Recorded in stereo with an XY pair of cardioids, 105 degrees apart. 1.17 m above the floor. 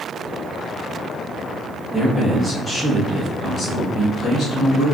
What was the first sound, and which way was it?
A man speaking, straight ahead.